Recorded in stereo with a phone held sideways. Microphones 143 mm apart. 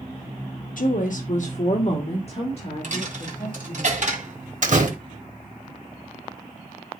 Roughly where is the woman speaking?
Left.